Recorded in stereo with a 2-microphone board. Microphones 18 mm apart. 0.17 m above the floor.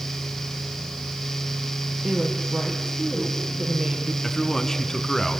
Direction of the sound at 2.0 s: 60° right (ahead or behind).